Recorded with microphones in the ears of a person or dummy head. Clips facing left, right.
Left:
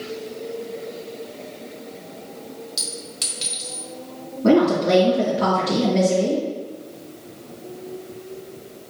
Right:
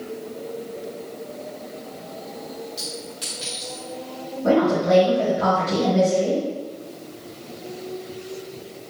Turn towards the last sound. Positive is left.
turn(degrees=45)  # may be behind; listen again after turning